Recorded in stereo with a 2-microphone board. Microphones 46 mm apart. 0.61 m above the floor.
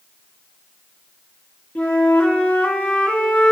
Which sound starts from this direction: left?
A flute, at 1.8 s.